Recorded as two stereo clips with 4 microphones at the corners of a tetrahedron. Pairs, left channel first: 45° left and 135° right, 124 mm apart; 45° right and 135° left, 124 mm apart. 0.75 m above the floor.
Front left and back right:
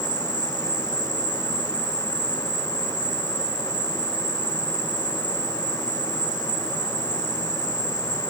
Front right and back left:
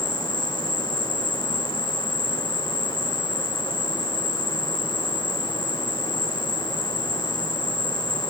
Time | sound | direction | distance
0.0 | an insect | 175° left | ?